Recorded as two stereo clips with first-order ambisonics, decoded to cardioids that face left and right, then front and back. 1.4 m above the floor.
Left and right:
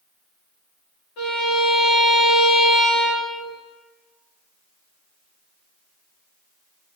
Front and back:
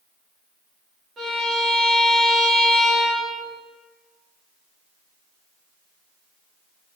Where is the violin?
110° left, 3.5 m.